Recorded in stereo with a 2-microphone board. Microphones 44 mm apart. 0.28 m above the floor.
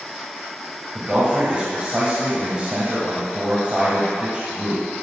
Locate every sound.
0.9 s a man speaking: 25° right (ahead or behind), 1.6 m